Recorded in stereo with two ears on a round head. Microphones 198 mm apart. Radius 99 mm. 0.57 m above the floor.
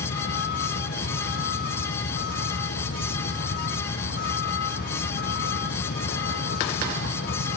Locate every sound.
0.0 s a vehicle: 45° left (ahead or behind)